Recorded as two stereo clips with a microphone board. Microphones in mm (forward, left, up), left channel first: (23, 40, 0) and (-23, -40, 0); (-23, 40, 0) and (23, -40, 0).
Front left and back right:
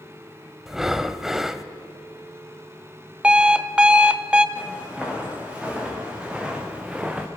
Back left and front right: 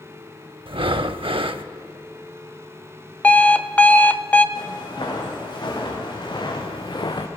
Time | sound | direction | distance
0.7 | breathing | 35° right | 0.5 m
3.2 | an alarm clock | 175° left | 0.5 m
4.5 | footsteps | 160° left | 5.5 m